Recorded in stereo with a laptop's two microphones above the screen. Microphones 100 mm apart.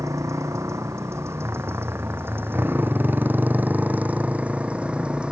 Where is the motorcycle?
30° right (ahead or behind); by 5.3 s 10° right (ahead or behind).